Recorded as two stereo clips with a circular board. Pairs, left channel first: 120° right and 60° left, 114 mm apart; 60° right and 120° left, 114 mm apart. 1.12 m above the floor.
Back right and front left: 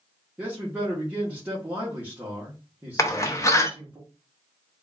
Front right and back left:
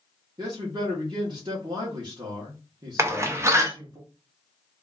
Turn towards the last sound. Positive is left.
turn(degrees=180)